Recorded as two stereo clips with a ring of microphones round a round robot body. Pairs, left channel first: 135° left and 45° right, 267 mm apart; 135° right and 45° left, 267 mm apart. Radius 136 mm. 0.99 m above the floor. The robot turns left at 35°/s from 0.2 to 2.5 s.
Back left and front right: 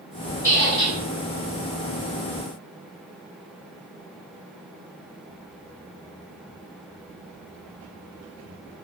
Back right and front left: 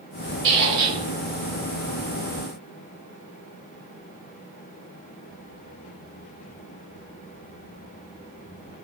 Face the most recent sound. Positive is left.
turn(degrees=-10)